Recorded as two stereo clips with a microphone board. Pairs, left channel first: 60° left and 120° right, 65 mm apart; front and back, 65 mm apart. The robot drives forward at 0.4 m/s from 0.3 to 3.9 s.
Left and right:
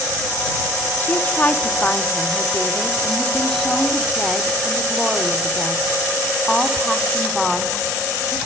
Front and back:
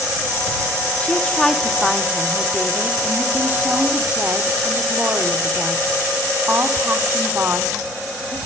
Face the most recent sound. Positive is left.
turn(degrees=155)